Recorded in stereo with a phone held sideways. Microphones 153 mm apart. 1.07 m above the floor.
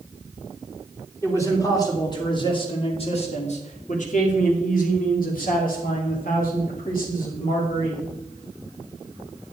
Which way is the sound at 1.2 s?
20° left (ahead or behind).